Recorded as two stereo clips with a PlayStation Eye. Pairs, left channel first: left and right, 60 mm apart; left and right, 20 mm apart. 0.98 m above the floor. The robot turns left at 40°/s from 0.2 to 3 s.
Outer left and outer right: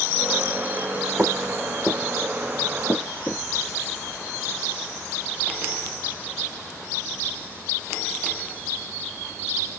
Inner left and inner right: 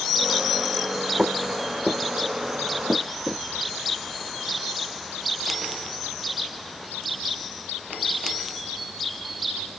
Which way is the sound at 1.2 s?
20° right (ahead or behind).